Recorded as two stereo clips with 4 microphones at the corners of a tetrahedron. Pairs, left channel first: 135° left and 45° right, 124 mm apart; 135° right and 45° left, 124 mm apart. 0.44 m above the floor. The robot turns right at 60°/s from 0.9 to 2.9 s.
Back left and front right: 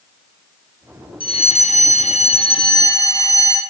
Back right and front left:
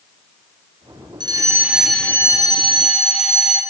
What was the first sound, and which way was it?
A fire alarm, 95° left.